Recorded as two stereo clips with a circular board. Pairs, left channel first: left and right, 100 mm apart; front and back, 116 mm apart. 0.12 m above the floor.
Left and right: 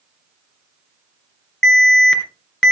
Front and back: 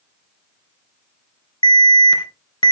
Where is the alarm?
10° left, 2.5 m.